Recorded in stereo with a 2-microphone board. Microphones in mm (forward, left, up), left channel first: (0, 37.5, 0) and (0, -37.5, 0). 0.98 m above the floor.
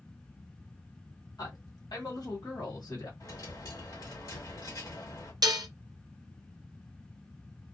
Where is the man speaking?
55° left (ahead or behind), 1.4 m.